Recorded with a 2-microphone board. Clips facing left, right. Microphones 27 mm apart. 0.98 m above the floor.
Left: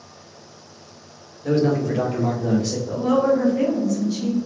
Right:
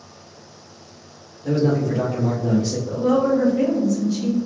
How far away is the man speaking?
About 1.1 m.